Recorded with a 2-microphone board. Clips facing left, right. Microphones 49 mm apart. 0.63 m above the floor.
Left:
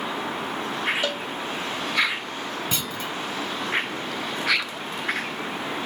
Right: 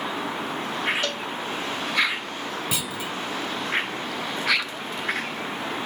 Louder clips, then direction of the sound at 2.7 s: Even; 10° right (ahead or behind).